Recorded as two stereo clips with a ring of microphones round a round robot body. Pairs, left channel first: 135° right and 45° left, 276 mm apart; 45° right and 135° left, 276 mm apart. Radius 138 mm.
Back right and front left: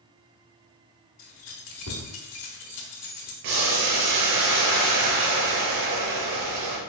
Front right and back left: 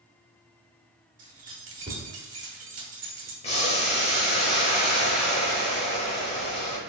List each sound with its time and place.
1.2 s keys jangling: 165° right, 0.8 m
3.4 s boiling: 25° left, 0.8 m